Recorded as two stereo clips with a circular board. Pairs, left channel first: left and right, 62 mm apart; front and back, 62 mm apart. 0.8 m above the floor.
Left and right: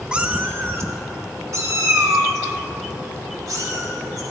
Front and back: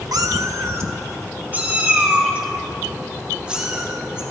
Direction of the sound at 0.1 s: 165° right.